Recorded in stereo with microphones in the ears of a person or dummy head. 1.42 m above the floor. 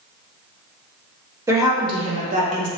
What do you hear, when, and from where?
1.5 s a woman speaking: 20° right (ahead or behind), 1.0 m; by 2.7 s 55° right (ahead or behind), 0.9 m